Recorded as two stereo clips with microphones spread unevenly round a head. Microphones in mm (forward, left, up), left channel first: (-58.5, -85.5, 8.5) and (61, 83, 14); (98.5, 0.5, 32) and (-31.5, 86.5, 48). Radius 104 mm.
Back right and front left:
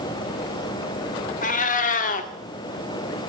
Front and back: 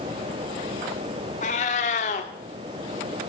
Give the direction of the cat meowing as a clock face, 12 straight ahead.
3 o'clock.